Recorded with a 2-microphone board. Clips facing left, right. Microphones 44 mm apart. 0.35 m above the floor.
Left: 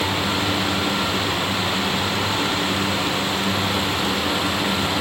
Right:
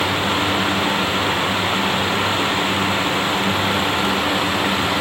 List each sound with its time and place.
Only background noise.